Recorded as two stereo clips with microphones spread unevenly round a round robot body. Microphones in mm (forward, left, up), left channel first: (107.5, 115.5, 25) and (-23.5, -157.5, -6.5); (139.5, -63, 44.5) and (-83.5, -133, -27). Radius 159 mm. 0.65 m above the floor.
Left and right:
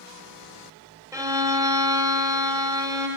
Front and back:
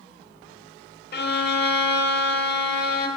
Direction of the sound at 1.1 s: 35° right.